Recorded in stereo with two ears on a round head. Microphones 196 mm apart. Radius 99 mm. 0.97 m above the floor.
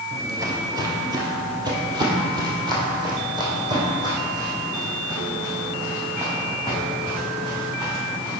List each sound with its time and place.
0.1 s footsteps: 15° right (ahead or behind), 1.0 m; by 8.4 s 20° right (ahead or behind), 5.5 m